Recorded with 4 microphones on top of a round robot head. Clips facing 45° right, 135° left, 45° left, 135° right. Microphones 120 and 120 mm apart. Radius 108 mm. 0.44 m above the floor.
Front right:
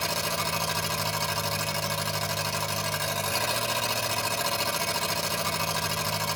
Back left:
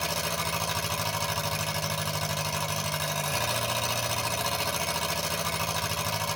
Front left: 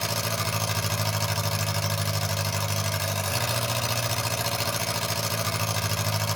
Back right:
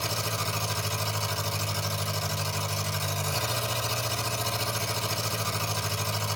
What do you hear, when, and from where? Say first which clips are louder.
0.0 s an engine running: front right 1 dB, front left 2 dB; 50° left, 3.5 m